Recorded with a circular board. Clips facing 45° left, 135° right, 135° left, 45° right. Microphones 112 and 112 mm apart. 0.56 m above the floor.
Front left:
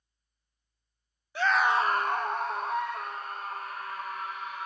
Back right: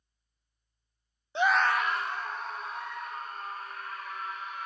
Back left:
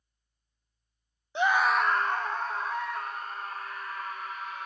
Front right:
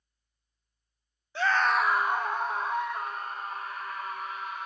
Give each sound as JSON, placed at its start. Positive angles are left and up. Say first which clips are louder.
{"t": 1.4, "sound": "a scream", "louder": "front left 1 dB, back left 1 dB", "azimuth_deg": -175, "distance_m": 0.6}